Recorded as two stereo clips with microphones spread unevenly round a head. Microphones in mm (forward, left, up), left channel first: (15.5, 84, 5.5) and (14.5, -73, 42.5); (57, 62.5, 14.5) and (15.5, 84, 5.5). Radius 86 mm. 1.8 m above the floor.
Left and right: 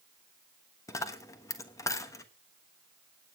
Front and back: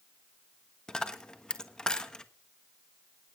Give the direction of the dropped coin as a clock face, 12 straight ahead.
12 o'clock.